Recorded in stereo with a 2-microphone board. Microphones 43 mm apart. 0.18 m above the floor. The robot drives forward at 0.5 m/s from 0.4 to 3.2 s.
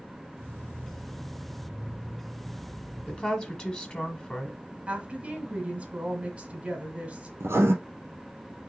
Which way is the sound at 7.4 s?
75° right (ahead or behind).